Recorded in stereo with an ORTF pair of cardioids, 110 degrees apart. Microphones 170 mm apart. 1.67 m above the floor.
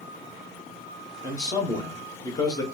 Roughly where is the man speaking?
Ahead.